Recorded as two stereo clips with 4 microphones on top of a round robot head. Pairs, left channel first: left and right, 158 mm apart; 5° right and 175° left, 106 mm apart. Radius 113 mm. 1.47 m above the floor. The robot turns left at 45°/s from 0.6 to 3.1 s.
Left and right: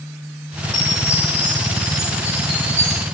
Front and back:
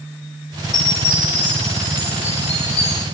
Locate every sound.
0.7 s a chime: 50° left, 1.6 m; by 3.0 s 55° right, 1.6 m